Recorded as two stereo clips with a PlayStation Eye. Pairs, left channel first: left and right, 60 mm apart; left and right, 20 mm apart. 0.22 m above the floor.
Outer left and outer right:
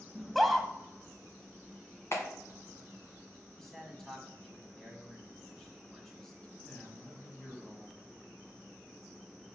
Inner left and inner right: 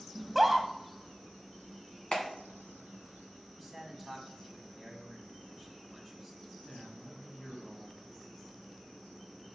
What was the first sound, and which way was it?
A scream, centre (ahead or behind).